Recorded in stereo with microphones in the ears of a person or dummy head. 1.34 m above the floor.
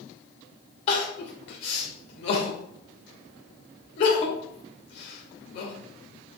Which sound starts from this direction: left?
Crying, at 0.9 s.